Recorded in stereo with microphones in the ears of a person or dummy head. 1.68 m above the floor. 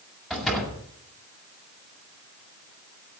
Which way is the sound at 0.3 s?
5° right (ahead or behind).